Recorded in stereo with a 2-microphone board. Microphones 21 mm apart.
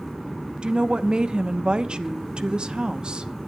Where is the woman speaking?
50° right (ahead or behind), 0.9 m.